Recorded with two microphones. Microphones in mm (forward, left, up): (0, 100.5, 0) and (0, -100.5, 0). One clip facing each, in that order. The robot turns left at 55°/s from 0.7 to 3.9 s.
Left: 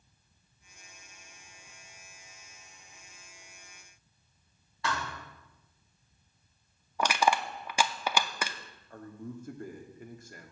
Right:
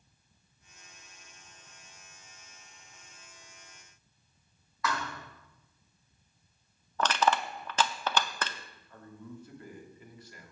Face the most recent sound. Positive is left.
turn(degrees=50)  # may be behind; listen again after turning